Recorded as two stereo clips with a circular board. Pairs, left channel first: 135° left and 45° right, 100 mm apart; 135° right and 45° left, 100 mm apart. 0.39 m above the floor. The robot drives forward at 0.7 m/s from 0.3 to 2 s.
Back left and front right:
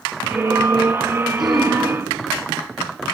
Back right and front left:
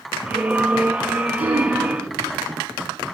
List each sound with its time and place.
1.4 s throat clearing: 45° left, 2 m; by 1.8 s 50° left, 2.0 m